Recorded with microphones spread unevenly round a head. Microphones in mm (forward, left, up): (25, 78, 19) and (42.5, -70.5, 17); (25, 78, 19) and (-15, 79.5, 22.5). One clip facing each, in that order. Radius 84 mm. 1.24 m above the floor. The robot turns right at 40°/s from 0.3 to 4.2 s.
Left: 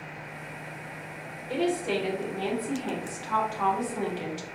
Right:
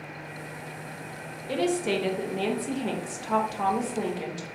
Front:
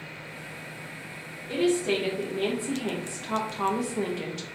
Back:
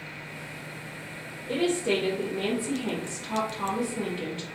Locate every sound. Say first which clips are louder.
1.5 s a woman speaking: right 1 dB, front 1 dB; 115° right, 1.2 m; by 4.5 s 5° right, 1.2 m